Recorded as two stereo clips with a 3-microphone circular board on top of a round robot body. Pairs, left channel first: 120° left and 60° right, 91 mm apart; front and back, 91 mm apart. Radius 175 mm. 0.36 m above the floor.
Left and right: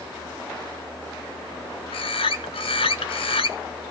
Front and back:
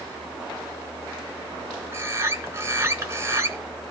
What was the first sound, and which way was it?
A bird, 120° left.